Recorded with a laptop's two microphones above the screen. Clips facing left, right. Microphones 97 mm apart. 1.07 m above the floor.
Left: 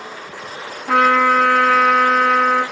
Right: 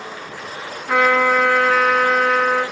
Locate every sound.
0.9 s a trumpet: 65° left (ahead or behind), 9 m